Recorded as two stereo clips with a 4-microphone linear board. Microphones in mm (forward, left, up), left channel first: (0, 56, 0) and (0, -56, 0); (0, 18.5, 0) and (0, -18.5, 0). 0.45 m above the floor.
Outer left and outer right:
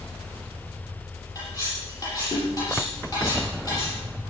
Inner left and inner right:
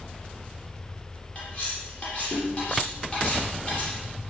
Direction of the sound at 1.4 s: 35° left (ahead or behind).